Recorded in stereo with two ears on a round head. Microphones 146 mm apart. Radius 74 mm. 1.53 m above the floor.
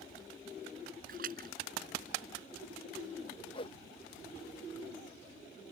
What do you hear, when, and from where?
1.1 s a splash: 55° right (ahead or behind)
3.5 s a whoosh: 35° left (ahead or behind)